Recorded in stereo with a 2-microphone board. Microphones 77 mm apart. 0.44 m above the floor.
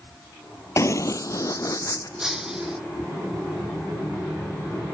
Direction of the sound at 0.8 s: 45° left (ahead or behind).